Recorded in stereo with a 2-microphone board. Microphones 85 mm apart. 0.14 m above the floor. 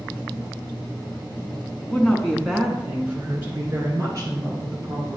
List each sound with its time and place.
1.8 s a woman speaking: 20° left (ahead or behind), 1.4 m; by 5.2 s 40° right (ahead or behind), 3 m